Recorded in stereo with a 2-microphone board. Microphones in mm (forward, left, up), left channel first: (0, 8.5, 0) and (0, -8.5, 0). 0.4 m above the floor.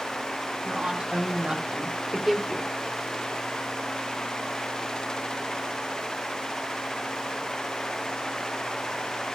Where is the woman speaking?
70° right (ahead or behind), 2.5 m; by 2.7 s 15° left (ahead or behind), 1.1 m.